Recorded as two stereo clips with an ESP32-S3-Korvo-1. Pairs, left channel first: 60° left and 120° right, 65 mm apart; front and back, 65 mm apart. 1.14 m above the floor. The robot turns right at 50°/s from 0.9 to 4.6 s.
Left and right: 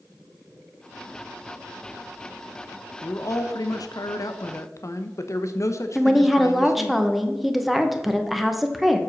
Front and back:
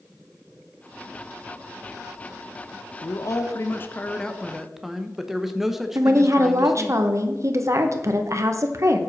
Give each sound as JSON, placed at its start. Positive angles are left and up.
{"t": 3.0, "sound": "a man speaking", "azimuth_deg": 15, "distance_m": 0.9}
{"t": 6.0, "sound": "a woman speaking", "azimuth_deg": 150, "distance_m": 0.9}